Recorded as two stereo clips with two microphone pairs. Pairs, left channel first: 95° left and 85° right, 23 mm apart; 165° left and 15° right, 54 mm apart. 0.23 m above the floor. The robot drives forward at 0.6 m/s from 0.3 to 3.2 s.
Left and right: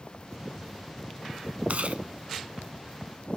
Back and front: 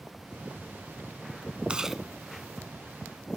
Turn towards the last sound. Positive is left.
turn(degrees=-150)